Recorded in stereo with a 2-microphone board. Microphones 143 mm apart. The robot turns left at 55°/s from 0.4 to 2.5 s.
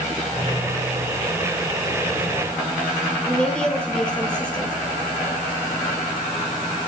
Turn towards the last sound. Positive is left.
turn(degrees=5)  # may be behind; listen again after turning